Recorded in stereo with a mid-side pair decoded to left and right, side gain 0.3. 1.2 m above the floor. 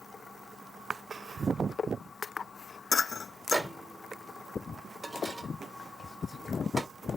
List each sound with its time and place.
3.5 s a microwave: 35° right, 1.0 m